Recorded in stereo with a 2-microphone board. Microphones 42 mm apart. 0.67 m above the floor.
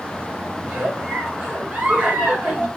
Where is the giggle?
30° right (ahead or behind), 5 m.